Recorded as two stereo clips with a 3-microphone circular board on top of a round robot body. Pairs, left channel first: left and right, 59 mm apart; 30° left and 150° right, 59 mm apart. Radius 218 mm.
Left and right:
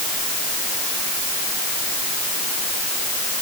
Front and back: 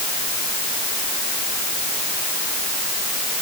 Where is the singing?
No singing in this recording.